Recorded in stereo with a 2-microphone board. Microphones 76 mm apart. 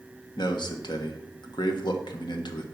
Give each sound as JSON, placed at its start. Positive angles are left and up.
{"t": 0.4, "sound": "a man speaking", "side_deg": 70, "distance_m": 1.4}